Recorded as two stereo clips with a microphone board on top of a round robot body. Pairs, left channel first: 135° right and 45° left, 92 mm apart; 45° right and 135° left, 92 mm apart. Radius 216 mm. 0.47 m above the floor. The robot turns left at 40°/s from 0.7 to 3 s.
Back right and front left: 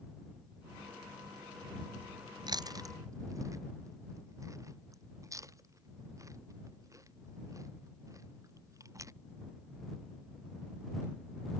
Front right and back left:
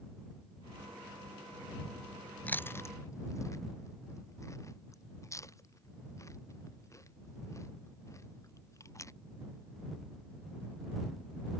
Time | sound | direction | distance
2.5 | chewing | 25° left | ?